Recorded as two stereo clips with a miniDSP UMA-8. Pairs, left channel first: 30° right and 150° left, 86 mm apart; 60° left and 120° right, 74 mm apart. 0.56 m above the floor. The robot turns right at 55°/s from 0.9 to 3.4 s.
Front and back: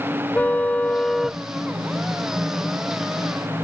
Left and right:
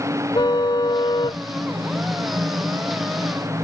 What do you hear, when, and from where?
0.3 s a car horn: 45° left; by 1.4 s 70° left